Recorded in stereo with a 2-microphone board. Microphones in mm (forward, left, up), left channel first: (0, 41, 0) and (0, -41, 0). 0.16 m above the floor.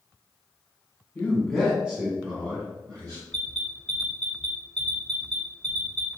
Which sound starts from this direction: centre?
An alarm, at 3.3 s.